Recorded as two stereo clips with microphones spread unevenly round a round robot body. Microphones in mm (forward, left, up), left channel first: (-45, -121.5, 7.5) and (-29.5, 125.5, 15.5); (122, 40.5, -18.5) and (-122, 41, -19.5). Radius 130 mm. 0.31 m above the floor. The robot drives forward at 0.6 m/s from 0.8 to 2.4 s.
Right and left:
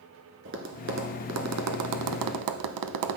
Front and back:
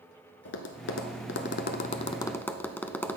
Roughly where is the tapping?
Ahead left.